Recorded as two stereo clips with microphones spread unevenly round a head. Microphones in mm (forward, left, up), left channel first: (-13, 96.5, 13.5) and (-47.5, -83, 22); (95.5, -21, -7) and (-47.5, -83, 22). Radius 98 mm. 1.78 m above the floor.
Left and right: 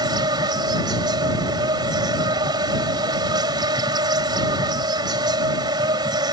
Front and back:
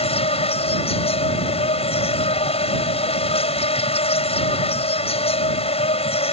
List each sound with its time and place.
0.0 s an insect: 30° right